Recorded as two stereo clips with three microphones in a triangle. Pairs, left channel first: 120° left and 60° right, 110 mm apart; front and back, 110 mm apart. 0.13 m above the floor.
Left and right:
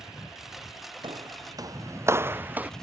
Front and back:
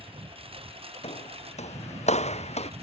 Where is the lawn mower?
145° right; by 2.8 s 155° right.